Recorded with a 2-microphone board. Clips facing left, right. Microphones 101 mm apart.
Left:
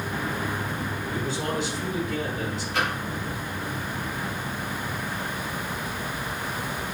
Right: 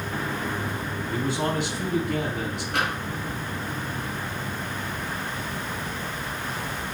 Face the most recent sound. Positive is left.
turn(degrees=-75)  # may be behind; listen again after turning